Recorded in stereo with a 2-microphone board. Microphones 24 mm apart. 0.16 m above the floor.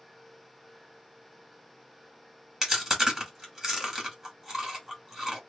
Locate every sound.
2.6 s chewing: 20° right (ahead or behind), 1.6 m